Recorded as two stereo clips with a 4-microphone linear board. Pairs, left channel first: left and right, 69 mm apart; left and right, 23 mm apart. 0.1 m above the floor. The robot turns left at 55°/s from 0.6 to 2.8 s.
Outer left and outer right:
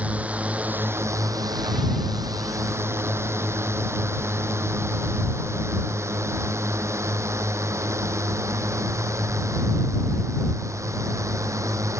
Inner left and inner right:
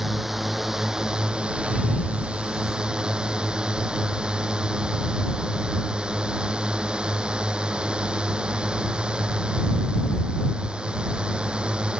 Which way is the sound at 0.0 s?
20° right (ahead or behind).